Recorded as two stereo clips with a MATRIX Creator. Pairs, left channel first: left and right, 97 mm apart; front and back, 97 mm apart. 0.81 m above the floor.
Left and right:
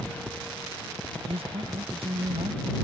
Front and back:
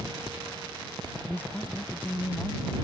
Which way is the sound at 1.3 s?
75° right.